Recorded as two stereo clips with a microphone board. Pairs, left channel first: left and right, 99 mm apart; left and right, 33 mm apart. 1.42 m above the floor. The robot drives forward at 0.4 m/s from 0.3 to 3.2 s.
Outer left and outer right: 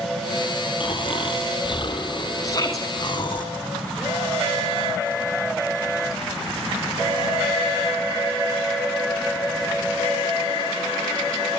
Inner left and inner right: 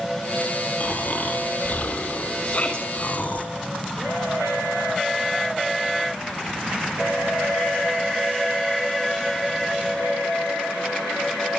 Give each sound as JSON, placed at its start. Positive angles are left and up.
{"t": 0.8, "sound": "snoring", "side_deg": 55, "distance_m": 4.5}
{"t": 2.4, "sound": "a shout", "side_deg": 35, "distance_m": 2.5}